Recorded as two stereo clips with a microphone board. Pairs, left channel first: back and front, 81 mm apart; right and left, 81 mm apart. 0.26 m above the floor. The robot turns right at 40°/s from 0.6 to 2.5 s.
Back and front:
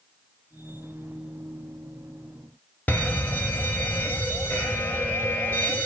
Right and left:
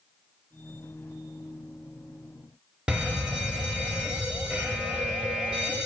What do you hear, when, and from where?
2.9 s a fire alarm: 150° left, 2.0 m